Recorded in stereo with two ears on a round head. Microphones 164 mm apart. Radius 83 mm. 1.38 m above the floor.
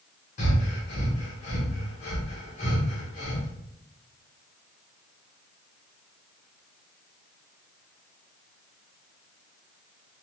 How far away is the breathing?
About 0.8 m.